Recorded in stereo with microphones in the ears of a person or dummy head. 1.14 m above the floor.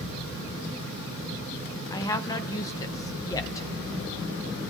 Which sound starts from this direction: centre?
A woman speaking, at 1.9 s.